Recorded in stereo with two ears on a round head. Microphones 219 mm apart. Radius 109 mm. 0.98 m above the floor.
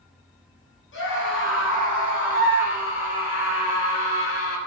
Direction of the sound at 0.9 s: 50° left (ahead or behind).